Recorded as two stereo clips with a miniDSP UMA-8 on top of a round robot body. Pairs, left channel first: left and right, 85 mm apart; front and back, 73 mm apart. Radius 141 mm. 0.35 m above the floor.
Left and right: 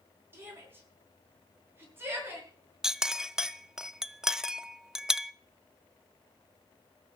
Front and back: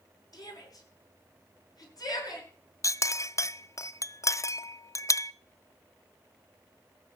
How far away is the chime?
I don't hear a chime.